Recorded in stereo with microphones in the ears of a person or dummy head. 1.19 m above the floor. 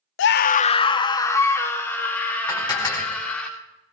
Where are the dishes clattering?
20° left (ahead or behind), 2 m.